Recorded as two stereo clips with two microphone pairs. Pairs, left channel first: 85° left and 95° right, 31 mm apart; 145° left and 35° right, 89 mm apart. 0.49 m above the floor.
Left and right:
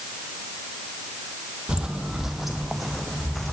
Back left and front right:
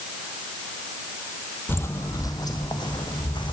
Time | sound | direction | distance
1.7 | footsteps | 150° right | 0.9 m